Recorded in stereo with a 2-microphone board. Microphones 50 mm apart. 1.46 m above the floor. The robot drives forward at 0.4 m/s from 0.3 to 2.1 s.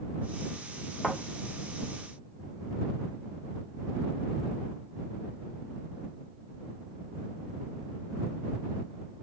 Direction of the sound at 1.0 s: Centre (ahead or behind).